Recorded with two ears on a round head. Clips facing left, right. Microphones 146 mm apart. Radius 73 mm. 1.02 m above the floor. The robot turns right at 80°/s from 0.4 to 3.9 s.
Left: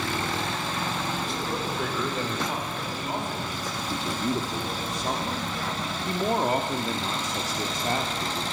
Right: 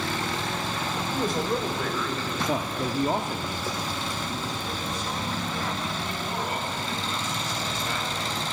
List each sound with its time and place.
1.1 s a man speaking: 55° right, 5.5 m; by 2.4 s 45° left, 5.5 m
2.5 s a man speaking: 80° right, 3 m; by 8.4 s 35° left, 3 m